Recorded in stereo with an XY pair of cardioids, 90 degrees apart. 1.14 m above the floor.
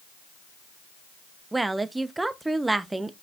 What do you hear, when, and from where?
1.5 s a woman speaking: 20° right, 1.0 m